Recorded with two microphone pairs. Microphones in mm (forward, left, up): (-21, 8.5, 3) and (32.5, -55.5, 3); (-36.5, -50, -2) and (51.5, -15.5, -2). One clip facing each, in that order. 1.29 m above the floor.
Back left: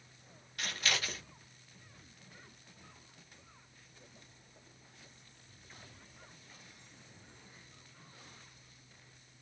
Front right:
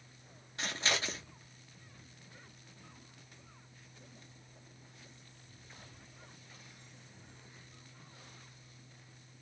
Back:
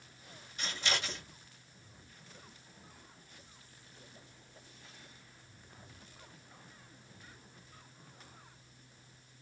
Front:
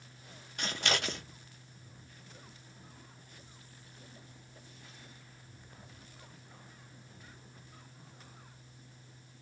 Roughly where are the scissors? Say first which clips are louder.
Front right 1 dB, front 3 dB; ahead.